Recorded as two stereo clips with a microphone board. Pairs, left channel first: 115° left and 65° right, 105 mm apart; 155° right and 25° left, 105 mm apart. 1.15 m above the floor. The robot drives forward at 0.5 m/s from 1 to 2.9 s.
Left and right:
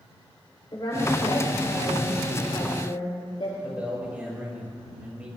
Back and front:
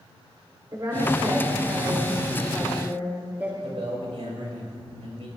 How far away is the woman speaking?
About 3.5 m.